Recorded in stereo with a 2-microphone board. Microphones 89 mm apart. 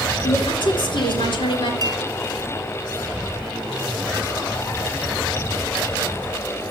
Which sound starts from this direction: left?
A woman speaking, at 0.2 s.